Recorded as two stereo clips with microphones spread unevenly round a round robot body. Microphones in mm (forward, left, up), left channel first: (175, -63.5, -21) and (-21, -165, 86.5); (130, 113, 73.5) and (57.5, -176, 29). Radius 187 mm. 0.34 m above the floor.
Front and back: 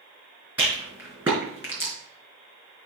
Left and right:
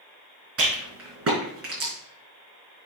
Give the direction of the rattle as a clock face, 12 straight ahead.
2 o'clock.